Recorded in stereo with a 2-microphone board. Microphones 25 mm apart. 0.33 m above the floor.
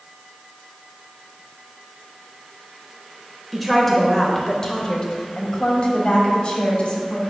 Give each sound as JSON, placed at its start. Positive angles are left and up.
{"t": 3.5, "sound": "a woman speaking", "side_deg": -5, "distance_m": 0.9}